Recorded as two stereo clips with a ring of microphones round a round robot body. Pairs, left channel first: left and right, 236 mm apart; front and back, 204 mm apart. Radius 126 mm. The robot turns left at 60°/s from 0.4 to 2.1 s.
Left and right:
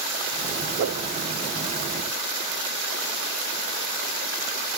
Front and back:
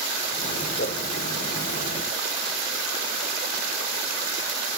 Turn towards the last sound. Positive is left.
turn(degrees=-130)